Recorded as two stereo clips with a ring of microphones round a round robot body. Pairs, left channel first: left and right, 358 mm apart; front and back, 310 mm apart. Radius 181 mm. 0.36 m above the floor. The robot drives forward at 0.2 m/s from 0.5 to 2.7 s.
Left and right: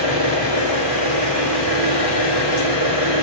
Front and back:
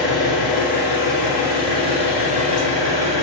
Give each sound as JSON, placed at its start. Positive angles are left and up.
{"t": 0.0, "sound": "an engine running", "azimuth_deg": -95, "distance_m": 1.3}